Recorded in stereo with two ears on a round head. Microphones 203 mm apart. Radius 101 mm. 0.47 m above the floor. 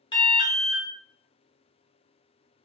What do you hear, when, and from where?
0.1 s an alarm: 20° left (ahead or behind), 0.7 m